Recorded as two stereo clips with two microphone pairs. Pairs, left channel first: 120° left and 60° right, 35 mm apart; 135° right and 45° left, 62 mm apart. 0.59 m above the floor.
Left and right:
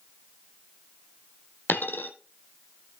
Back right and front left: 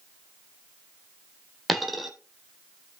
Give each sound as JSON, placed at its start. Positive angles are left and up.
{"t": 1.7, "sound": "a dropped coin", "azimuth_deg": 135, "distance_m": 1.6}